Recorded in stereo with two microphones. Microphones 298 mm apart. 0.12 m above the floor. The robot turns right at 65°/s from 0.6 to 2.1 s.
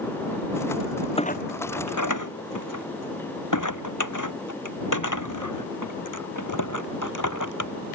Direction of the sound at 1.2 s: 15° left (ahead or behind).